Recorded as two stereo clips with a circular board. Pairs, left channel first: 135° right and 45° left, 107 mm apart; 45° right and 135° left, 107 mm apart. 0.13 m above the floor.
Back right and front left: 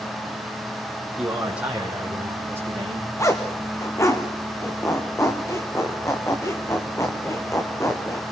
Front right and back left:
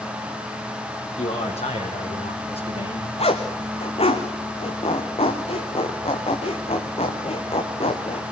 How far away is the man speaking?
About 5 m.